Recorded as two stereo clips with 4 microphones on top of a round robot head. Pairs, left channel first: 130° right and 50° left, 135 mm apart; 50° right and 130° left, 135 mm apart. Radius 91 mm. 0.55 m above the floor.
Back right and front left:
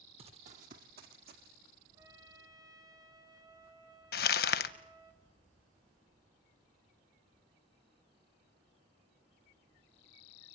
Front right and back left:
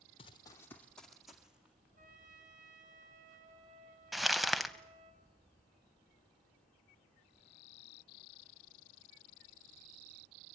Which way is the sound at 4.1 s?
140° right.